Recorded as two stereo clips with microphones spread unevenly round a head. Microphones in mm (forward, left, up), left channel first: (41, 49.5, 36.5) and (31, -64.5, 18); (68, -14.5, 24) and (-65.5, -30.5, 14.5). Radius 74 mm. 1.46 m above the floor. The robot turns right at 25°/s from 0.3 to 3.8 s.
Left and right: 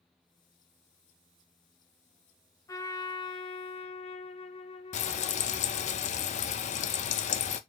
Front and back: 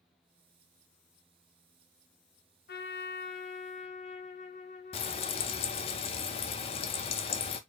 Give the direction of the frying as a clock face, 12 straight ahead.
10 o'clock.